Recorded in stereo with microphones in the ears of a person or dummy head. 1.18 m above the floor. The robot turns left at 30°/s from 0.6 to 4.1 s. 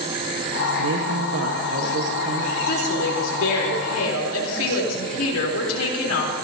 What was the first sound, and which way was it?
A man speaking, 90° right.